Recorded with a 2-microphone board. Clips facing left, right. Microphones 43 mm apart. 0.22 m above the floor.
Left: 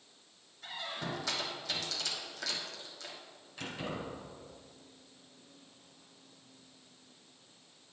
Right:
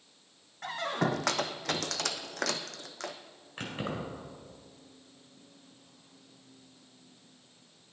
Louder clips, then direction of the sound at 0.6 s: Right 9 dB; 70° right (ahead or behind).